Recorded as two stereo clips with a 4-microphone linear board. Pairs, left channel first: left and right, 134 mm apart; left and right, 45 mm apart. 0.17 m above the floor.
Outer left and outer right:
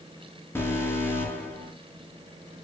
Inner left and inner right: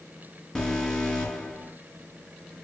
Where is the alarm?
15° left (ahead or behind), 3.5 m.